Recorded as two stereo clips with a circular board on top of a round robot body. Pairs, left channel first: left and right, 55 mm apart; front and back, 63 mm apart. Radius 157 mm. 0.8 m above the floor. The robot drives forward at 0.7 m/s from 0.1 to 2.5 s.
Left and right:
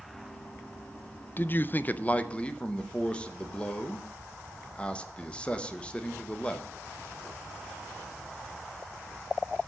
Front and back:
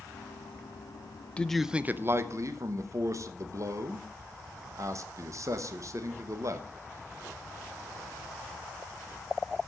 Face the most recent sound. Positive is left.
turn(degrees=160)